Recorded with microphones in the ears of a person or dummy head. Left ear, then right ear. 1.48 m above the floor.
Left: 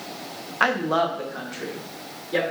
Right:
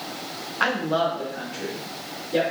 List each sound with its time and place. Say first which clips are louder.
0.6 s a woman speaking: left 1 dB; 15° left (ahead or behind), 0.8 m; by 2.4 s 60° left (ahead or behind), 3 m